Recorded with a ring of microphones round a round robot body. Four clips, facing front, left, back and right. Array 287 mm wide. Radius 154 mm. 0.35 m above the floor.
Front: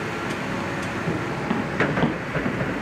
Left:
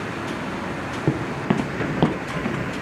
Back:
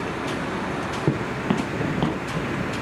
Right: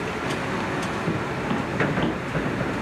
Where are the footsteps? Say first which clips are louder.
Left 3 dB, back 3 dB; 135° left, 1.6 m; by 2.8 s 65° left, 2.5 m.